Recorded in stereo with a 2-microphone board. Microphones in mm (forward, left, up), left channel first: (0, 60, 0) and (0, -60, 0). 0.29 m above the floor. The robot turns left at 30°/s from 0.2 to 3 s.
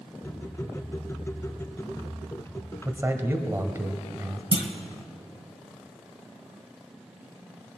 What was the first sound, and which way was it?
A man speaking, 20° right (ahead or behind).